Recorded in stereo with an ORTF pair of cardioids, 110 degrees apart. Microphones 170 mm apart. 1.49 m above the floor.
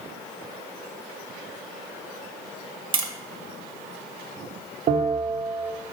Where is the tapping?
30° right, 1.5 m.